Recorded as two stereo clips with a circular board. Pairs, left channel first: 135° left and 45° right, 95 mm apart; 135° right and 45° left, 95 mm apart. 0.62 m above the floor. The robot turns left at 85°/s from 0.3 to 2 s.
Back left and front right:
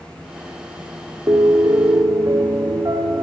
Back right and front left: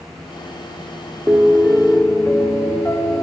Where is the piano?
15° right, 1.6 m; by 3.2 s 80° right, 1.6 m.